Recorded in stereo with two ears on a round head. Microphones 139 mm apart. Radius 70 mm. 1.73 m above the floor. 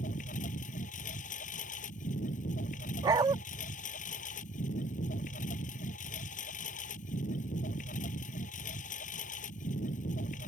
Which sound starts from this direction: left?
A lawn mower, at 0.0 s.